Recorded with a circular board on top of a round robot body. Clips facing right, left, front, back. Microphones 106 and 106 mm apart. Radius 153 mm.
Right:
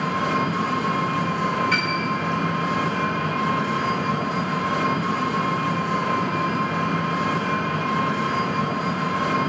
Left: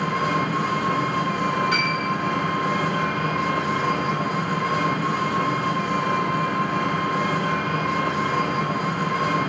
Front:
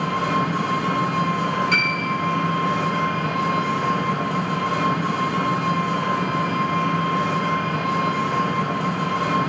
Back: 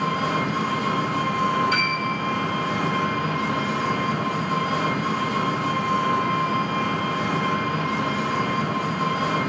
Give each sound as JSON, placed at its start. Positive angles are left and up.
{"t": 0.0, "sound": "an engine running", "azimuth_deg": 5, "distance_m": 3.0}
{"t": 1.7, "sound": "a piano", "azimuth_deg": 20, "distance_m": 3.5}